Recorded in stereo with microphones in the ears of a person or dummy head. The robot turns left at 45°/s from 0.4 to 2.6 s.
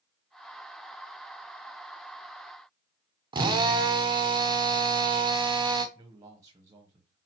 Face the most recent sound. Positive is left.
turn(degrees=-20)  # may be behind; listen again after turning